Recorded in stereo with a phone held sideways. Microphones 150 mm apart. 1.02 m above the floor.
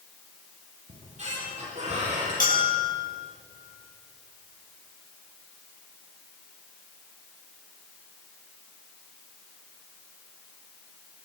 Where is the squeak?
50° right (ahead or behind), 9.5 m.